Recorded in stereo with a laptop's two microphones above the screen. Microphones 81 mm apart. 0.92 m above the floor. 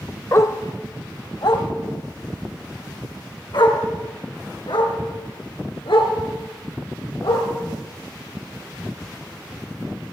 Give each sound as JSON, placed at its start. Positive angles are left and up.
{"t": 0.3, "sound": "a dog barking", "side_deg": 40, "distance_m": 0.8}